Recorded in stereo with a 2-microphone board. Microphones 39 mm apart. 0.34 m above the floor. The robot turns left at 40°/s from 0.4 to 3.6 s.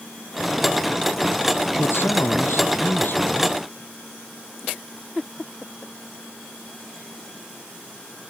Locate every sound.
1.8 s a man speaking: 115° left; by 3.6 s 45° left